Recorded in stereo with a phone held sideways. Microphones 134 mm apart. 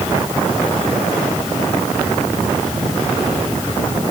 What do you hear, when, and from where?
Only background noise.